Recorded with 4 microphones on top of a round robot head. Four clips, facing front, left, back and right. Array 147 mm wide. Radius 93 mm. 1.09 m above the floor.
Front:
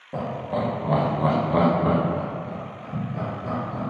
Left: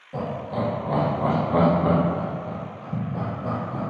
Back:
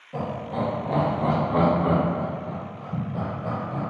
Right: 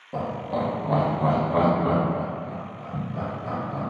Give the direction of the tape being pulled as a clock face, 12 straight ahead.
No tape being pulled in this recording.